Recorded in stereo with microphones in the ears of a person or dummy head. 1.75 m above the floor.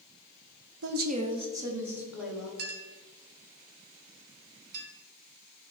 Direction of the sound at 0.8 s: 70° right (ahead or behind).